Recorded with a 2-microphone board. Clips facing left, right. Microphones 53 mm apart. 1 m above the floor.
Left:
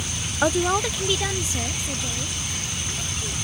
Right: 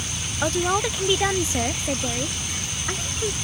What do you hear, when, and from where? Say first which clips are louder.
0.4 s a woman speaking: left 1 dB; 15° left (ahead or behind); by 3.3 s 55° right (ahead or behind)